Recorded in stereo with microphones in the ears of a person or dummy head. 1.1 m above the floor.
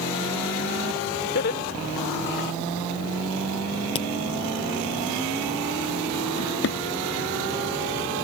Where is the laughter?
55° left (ahead or behind).